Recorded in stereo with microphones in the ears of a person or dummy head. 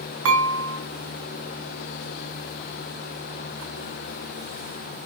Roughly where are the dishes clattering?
Right.